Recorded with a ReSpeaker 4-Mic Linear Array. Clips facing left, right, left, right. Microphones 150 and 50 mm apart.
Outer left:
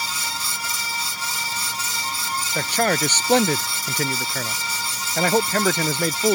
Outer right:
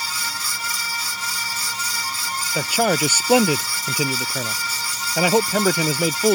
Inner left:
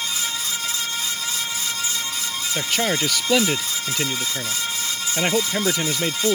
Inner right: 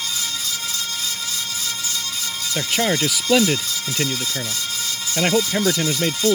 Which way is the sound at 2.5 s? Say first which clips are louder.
Outer right 2 dB, inner right 2 dB; 10° right (ahead or behind).